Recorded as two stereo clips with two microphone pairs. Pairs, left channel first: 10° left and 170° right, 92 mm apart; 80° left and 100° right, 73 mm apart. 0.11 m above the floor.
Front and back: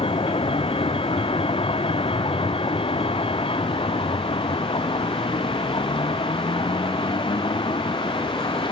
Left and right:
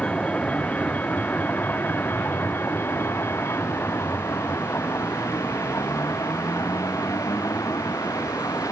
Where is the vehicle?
5° left; by 8.7 s 35° left.